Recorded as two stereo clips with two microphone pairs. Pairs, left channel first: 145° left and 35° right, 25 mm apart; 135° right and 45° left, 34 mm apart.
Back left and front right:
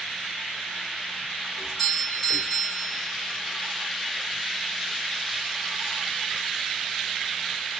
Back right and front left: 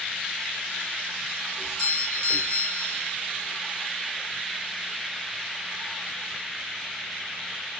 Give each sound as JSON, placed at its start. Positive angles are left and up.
{"t": 1.6, "sound": "a doorbell", "azimuth_deg": -170, "distance_m": 1.4}